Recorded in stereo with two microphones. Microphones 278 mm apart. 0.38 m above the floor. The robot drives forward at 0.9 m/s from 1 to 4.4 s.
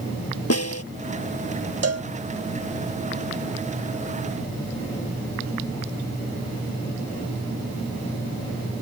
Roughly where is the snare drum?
Left.